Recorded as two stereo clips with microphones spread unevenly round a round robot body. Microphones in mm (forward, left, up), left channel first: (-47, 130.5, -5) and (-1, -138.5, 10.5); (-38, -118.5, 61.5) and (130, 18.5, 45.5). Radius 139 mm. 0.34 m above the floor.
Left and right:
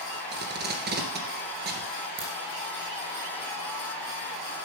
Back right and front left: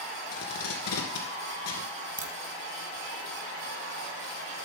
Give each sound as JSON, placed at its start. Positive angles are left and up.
{"t": 0.3, "sound": "tape being pulled", "azimuth_deg": -135, "distance_m": 2.5}
{"t": 2.2, "sound": "a crack", "azimuth_deg": -15, "distance_m": 1.6}